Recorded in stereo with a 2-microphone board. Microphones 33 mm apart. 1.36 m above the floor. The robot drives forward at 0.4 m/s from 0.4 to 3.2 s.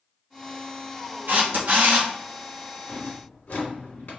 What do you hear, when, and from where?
1.3 s a camera shutter: 75° right (ahead or behind), 1.4 m; by 2.1 s 70° right (ahead or behind), 1.5 m
2.9 s a drawer: 50° left (ahead or behind), 1.8 m